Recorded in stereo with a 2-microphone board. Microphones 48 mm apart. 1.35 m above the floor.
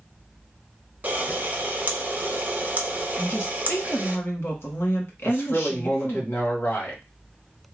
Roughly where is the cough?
No cough in this recording.